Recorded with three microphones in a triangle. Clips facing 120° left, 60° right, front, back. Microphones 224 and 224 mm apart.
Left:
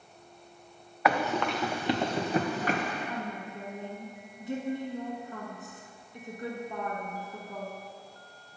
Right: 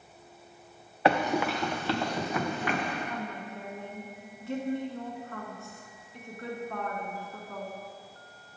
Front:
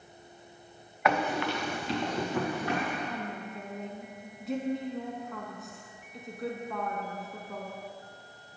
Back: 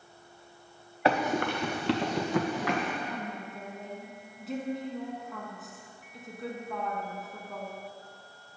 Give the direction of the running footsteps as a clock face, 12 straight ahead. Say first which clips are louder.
Right 2 dB, back 2 dB; 4 o'clock.